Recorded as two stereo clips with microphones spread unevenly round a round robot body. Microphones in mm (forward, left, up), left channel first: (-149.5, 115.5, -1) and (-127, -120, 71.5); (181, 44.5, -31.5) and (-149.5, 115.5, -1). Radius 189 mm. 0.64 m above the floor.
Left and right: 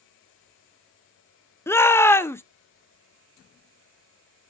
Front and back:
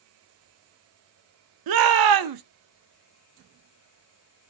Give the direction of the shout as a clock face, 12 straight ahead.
7 o'clock.